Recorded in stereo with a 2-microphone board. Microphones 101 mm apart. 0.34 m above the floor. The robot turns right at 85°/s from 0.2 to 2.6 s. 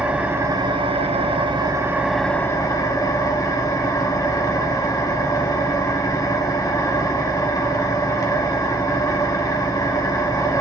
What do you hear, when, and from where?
0.0 s an engine running: 165° right, 0.7 m; by 10.6 s 40° left, 0.7 m